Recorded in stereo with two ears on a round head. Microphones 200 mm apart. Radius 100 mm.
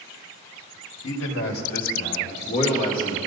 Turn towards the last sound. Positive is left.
turn(degrees=25)  # may be behind; listen again after turning